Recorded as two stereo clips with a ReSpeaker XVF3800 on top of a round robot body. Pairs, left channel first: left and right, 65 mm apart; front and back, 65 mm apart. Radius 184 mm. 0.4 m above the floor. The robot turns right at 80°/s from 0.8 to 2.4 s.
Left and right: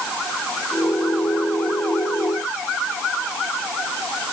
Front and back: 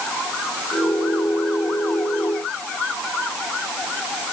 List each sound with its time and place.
Only background noise.